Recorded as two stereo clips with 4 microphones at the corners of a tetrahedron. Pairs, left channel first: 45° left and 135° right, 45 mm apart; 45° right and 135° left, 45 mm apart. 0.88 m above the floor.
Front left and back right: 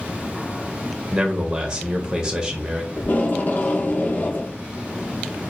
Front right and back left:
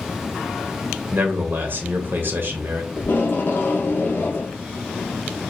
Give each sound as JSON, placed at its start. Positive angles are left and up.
{"t": 1.1, "sound": "a man speaking", "azimuth_deg": 150, "distance_m": 0.8}
{"t": 3.0, "sound": "tape being pulled", "azimuth_deg": -5, "distance_m": 0.9}